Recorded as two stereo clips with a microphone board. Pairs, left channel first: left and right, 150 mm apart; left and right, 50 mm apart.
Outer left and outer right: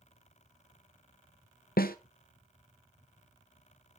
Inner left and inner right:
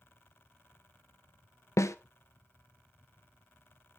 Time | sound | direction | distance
1.8 | a snare drum | 80° left | 0.6 m